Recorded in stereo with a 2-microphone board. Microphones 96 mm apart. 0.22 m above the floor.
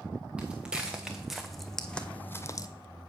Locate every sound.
0.4 s footsteps: 10° right (ahead or behind), 1.5 m; by 2.7 s 40° left (ahead or behind), 0.5 m